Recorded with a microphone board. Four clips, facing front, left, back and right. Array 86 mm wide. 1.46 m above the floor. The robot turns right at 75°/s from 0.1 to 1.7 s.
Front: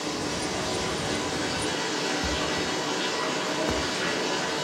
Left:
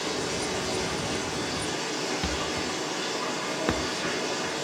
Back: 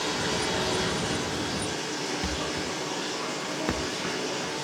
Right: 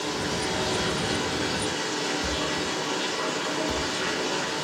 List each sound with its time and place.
0.0 s running water: 175° right, 5 m; by 4.6 s 55° right, 5 m
2.2 s a thud: 110° left, 1.0 m